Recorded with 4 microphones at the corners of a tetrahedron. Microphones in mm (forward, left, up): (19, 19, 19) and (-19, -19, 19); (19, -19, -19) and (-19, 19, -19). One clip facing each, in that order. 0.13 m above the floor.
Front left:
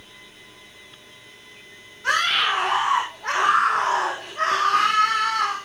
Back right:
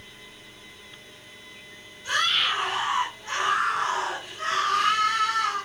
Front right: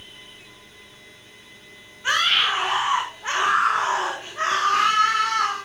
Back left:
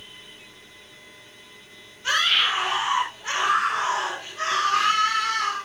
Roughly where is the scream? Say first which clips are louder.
Front left 4 dB, front right 1 dB; ahead left.